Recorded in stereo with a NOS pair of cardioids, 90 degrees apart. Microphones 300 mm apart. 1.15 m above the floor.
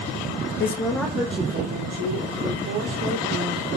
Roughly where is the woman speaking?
Ahead left.